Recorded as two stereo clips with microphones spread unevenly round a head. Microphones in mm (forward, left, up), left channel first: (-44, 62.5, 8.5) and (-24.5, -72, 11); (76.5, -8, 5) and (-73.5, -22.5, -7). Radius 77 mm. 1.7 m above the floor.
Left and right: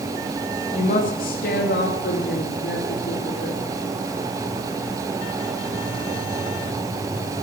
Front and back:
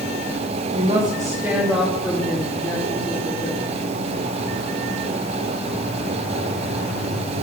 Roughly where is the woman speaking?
Behind left.